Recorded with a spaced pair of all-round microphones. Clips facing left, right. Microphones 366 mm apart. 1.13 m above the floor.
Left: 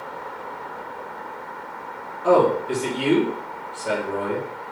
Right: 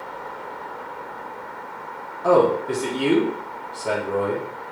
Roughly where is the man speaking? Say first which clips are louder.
Even; right.